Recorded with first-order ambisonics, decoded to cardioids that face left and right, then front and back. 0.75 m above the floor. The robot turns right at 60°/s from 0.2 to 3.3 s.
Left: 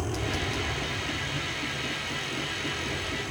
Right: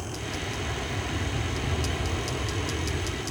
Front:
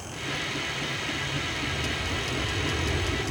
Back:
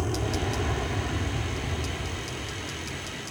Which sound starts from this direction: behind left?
An aircraft, at 0.0 s.